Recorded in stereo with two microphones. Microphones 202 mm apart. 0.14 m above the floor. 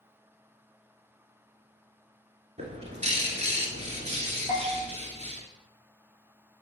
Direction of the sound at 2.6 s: 35° right (ahead or behind).